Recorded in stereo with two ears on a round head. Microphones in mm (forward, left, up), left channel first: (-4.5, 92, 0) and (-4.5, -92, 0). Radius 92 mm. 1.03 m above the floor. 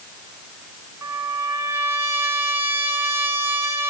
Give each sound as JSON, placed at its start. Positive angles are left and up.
{"t": 1.0, "sound": "a trumpet", "side_deg": -15, "distance_m": 4.0}